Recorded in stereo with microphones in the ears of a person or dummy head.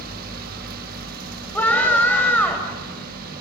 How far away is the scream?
About 5 m.